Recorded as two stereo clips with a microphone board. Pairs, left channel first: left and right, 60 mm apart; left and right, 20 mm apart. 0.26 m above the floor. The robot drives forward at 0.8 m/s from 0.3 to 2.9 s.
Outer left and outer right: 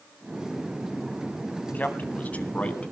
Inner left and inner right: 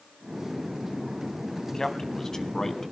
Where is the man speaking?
30° left (ahead or behind), 2 m; by 2.9 s 20° left (ahead or behind), 3 m.